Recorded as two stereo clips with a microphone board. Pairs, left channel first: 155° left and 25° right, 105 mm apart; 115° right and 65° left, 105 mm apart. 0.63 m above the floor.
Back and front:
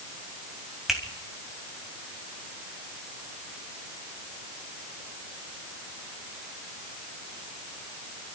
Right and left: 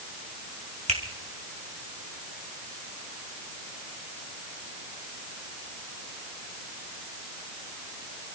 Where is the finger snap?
65° left, 3 m.